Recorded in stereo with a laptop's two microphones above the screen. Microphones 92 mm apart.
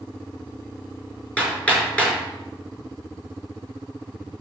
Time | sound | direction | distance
1.4 | hammering | 15° left (ahead or behind) | 5 m